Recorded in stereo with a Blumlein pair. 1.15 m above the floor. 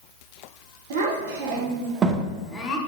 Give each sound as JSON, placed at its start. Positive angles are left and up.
{"t": 0.9, "sound": "a child speaking", "azimuth_deg": -60, "distance_m": 0.9}